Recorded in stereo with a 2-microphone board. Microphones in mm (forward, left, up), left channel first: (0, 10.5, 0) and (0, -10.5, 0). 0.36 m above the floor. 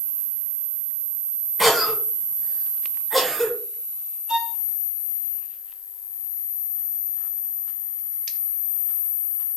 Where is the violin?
40° right (ahead or behind), 0.6 m.